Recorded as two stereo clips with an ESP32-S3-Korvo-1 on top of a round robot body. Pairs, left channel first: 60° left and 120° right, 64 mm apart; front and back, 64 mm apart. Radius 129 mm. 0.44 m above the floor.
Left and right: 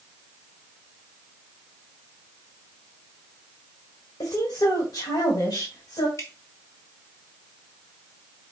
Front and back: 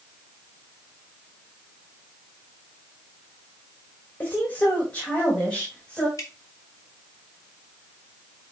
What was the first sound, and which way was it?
A woman speaking, 60° left.